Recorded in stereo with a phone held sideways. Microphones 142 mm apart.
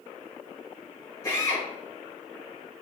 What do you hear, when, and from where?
1.2 s a drill: 20° left (ahead or behind), 4.5 m